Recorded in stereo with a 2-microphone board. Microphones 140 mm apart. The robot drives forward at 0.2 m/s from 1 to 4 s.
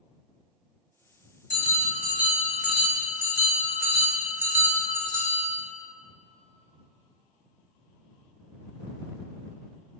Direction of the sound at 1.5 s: 10° right (ahead or behind).